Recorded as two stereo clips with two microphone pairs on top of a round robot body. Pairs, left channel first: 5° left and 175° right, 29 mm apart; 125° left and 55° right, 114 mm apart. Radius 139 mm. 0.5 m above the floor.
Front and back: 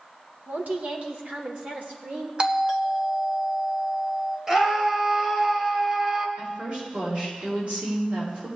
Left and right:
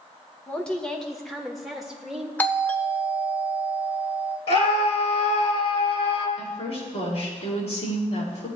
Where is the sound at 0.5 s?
160° right, 1.5 m; by 2.3 s 140° right, 3 m.